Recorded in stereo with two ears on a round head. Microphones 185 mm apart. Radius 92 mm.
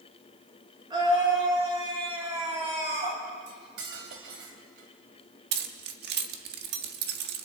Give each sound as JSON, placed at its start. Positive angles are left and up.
{"t": 0.9, "sound": "a scream", "side_deg": -20, "distance_m": 9.5}
{"t": 3.5, "sound": "cutlery clinking", "side_deg": -55, "distance_m": 3.0}
{"t": 5.5, "sound": "keys jangling", "side_deg": -55, "distance_m": 1.6}